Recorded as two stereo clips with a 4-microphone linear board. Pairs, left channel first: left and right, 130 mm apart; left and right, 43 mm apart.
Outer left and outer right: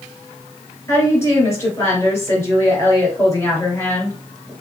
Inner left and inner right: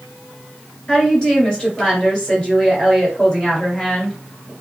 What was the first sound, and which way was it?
A woman speaking, 20° left (ahead or behind).